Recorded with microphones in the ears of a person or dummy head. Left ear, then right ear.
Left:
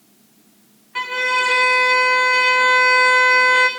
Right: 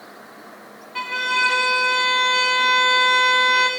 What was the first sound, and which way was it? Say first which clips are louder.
A violin: left 2 dB; 20° left (ahead or behind).